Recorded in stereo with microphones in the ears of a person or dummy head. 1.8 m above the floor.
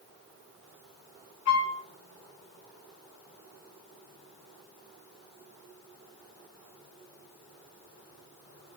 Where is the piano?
70° left (ahead or behind), 1.5 m.